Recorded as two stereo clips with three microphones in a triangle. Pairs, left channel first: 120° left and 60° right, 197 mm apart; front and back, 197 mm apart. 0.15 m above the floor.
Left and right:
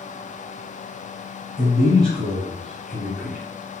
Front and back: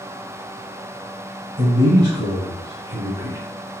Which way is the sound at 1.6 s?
160° right.